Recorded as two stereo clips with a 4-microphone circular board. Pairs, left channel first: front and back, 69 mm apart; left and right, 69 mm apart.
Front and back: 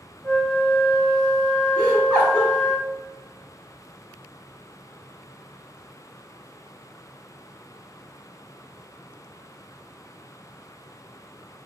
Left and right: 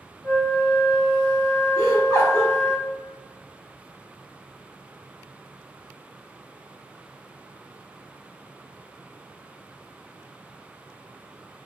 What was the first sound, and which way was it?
A flute, 60° left.